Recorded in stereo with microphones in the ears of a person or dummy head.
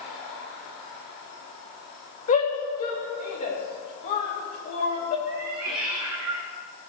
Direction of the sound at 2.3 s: 35° left (ahead or behind).